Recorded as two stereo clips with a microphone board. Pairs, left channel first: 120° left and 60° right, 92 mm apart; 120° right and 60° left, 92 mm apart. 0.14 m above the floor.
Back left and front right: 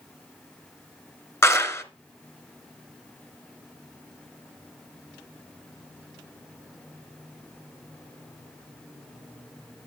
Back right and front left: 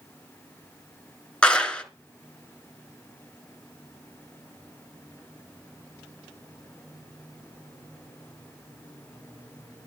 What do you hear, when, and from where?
1.4 s a clap: 165° left, 1.4 m